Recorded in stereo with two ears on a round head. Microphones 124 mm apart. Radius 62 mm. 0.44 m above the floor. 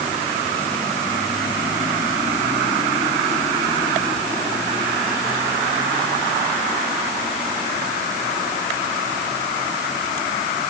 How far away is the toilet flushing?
I don't hear a toilet flushing.